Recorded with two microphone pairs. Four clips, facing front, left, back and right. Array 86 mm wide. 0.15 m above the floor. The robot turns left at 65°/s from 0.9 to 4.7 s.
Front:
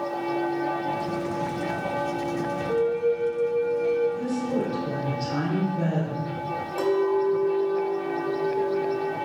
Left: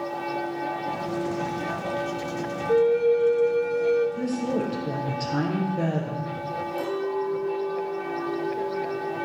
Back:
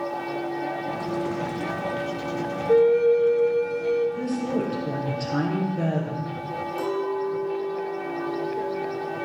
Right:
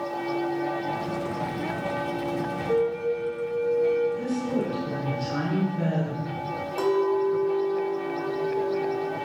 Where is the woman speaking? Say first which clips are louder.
Left 1 dB, even; 135° left, 3 m; by 6.3 s 100° left, 3 m.